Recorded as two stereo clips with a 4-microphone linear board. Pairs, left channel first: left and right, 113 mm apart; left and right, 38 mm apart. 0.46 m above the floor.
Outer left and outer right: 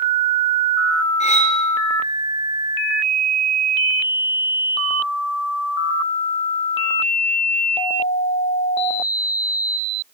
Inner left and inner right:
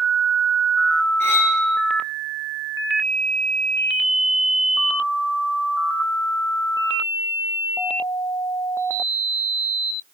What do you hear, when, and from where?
1.2 s cutlery clinking: 85° left, 4 m